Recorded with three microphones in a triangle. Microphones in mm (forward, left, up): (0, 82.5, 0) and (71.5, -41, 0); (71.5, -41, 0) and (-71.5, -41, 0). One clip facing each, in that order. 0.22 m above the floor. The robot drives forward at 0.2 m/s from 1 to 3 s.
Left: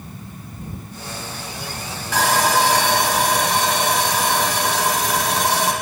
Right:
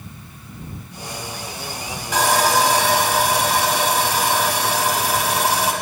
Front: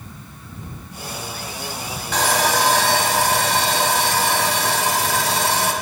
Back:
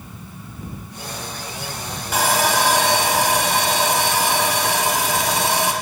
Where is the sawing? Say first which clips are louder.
Right 1 dB, even; 105° right, 1.0 m; by 5.7 s 130° right, 1.0 m.